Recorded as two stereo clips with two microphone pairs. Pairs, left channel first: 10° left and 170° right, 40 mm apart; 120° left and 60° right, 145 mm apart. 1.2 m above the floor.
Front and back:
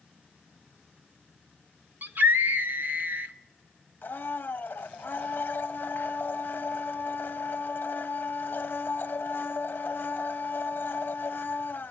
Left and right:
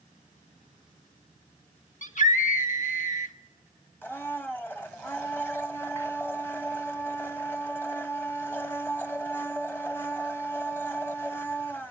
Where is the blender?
45° left, 1.2 m.